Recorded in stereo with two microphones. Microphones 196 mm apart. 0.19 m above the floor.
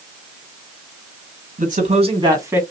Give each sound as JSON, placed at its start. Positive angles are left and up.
{"t": 1.6, "sound": "a man speaking", "side_deg": -45, "distance_m": 2.5}